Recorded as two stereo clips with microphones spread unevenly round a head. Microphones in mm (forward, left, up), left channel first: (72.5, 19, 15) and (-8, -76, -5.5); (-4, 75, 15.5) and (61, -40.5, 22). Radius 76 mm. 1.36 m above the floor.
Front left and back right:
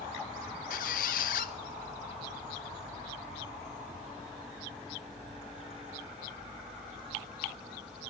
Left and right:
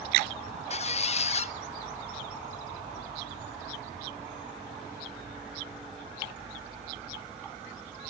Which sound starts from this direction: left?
A squeak, at 0.7 s.